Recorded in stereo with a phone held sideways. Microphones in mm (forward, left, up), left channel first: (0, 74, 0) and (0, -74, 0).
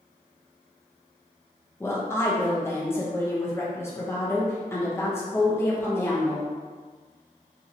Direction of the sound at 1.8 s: 15° left (ahead or behind).